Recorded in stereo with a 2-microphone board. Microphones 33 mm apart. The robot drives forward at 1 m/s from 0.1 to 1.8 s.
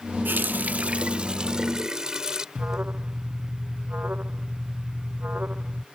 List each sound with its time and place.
0.2 s a running tap: 85° right; by 2.5 s 25° right (ahead or behind)
2.5 s an alarm: 70° right (ahead or behind)